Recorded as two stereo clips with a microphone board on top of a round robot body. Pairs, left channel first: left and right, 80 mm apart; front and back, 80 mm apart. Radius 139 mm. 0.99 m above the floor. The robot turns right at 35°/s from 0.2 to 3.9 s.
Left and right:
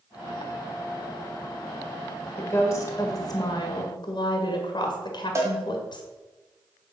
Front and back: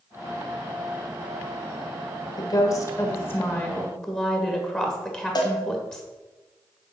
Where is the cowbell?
35° right, 1.3 m.